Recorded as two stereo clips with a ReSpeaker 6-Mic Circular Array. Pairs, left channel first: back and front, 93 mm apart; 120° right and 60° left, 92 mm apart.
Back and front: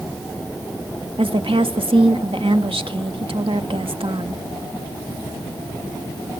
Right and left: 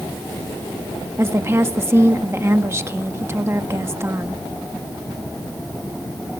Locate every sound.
1.2 s a woman speaking: straight ahead, 1.6 m